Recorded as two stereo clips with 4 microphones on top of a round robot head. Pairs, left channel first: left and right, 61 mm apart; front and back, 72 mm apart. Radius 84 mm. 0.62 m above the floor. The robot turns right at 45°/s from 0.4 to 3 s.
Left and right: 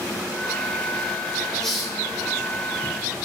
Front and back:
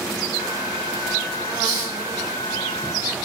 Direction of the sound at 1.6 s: 170° left.